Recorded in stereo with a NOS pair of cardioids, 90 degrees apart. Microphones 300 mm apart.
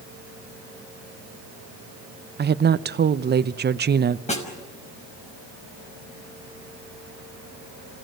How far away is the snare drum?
About 5.5 m.